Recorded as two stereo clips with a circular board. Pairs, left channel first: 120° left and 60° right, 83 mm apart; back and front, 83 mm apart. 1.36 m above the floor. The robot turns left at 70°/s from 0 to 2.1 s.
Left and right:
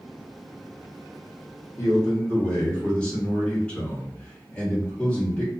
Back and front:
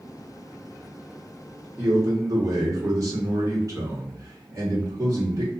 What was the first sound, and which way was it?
A man speaking, 70° left.